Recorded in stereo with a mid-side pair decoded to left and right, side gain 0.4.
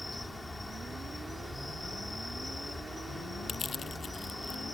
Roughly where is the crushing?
Ahead left.